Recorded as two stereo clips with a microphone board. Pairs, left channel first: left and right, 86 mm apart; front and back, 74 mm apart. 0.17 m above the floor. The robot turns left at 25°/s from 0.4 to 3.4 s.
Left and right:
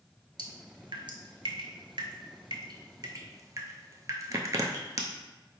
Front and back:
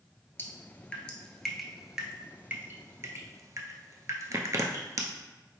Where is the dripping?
60° right, 0.5 m; by 5.0 s 135° right, 0.5 m.